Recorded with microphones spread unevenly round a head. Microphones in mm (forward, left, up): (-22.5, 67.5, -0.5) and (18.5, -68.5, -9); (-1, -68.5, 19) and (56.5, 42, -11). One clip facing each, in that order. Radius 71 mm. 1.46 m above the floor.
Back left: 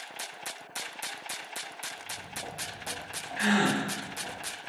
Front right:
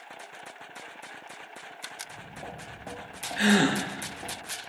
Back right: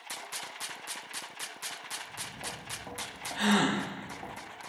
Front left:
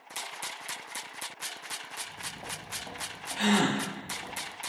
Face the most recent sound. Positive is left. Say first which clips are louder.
# front right 3 dB, front left 1 dB
turn(degrees=-35)